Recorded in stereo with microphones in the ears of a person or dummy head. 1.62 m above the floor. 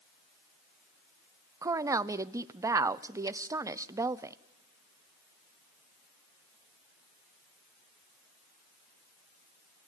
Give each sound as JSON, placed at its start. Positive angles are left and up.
{"t": 1.6, "sound": "a woman speaking", "side_deg": -15, "distance_m": 0.5}